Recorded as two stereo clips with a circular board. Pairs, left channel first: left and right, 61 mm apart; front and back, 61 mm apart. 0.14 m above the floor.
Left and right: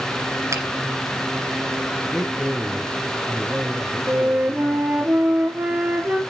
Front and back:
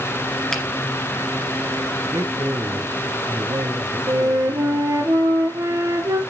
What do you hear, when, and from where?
0.5 s a finger snap: 75° right, 2 m
2.0 s a man speaking: 175° right, 1.7 m
4.1 s a flute: 155° right, 1.8 m